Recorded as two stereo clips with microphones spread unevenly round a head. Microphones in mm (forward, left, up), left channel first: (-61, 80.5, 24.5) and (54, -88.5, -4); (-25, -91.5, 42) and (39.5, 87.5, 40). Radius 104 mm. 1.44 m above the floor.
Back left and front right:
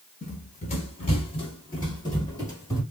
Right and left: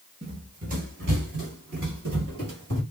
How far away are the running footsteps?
About 1.8 m.